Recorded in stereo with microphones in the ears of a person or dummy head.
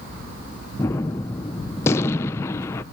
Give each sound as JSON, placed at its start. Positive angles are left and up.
{"t": 0.8, "sound": "a gunshot", "side_deg": 10, "distance_m": 0.5}